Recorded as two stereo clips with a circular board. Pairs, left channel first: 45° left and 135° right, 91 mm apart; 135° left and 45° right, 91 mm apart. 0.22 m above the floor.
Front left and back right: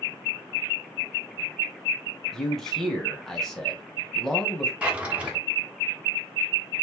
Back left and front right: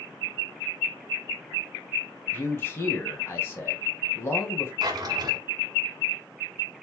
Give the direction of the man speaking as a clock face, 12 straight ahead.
8 o'clock.